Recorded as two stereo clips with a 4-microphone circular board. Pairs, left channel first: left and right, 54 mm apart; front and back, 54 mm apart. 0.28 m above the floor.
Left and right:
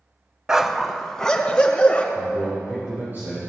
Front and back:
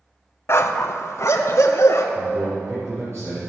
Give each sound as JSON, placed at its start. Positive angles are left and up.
{"t": 0.5, "sound": "a dog barking", "azimuth_deg": -15, "distance_m": 0.7}
{"t": 2.1, "sound": "a man speaking", "azimuth_deg": -145, "distance_m": 5.0}